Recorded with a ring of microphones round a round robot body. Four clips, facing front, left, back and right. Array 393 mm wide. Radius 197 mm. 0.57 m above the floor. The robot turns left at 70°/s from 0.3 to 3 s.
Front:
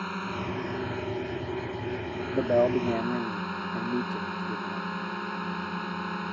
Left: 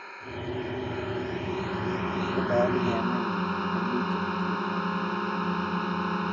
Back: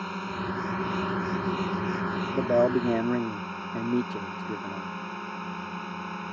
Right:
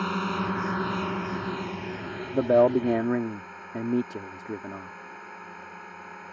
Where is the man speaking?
80° right; by 4.9 s 125° right.